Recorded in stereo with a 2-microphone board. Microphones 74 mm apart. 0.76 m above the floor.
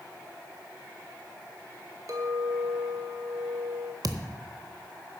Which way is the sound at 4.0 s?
55° right (ahead or behind).